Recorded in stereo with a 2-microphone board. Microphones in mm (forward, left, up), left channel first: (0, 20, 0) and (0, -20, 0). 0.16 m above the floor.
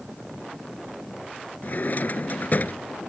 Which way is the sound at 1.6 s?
50° left (ahead or behind).